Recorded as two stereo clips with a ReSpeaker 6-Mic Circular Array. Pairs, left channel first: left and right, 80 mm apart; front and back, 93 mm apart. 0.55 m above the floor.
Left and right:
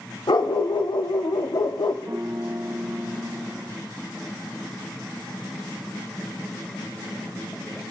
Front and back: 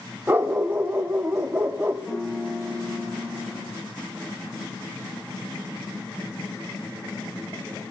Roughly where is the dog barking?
Behind left.